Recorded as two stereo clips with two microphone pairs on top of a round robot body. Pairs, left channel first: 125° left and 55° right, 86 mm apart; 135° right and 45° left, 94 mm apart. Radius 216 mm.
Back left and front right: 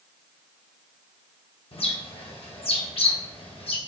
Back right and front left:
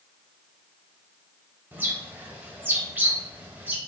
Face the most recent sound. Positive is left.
turn(degrees=115)